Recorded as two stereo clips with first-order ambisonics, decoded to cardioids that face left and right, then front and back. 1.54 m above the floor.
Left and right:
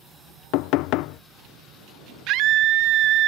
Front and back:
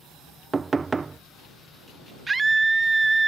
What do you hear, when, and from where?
0.5 s knocking: 105° left
2.3 s a scream: 105° right